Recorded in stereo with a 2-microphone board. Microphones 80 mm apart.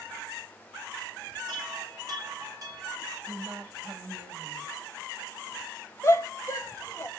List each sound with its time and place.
1.5 s a chime: 50° right (ahead or behind), 6 m
3.2 s a woman speaking: 40° right (ahead or behind), 7.5 m
6.0 s a shout: 35° left (ahead or behind), 2.5 m